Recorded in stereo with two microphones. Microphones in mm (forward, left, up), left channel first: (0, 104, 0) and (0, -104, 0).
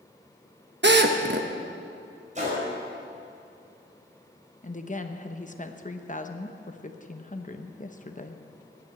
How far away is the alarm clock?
I don't hear an alarm clock.